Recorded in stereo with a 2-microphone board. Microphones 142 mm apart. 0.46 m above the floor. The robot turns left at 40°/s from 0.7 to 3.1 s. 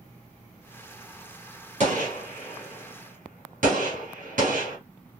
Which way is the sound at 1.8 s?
55° right (ahead or behind).